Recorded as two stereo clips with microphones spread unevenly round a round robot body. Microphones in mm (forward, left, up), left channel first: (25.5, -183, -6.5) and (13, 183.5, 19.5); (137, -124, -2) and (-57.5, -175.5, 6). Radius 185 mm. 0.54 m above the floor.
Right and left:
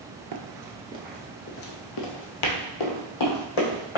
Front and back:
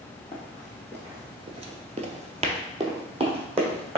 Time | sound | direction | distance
0.3 | running footsteps | 100° left | 0.7 m